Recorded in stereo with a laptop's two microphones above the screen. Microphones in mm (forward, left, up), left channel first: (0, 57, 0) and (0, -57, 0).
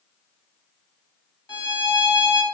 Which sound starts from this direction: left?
A violin, at 1.5 s.